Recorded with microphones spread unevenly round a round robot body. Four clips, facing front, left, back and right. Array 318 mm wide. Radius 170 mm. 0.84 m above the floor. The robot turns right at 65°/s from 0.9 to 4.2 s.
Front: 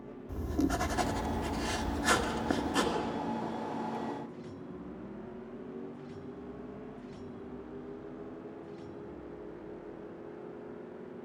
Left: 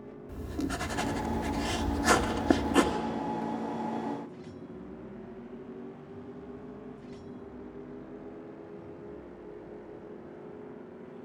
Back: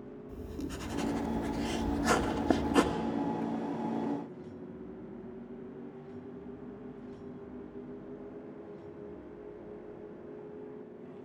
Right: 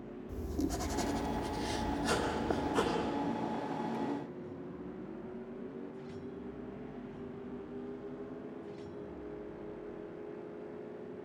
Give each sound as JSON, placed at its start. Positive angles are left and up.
{"t": 0.3, "sound": "writing", "azimuth_deg": 10, "distance_m": 1.8}